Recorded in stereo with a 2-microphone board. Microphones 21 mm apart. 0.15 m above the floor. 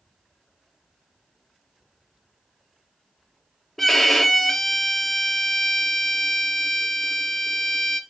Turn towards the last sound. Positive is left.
turn(degrees=15)  # may be behind; listen again after turning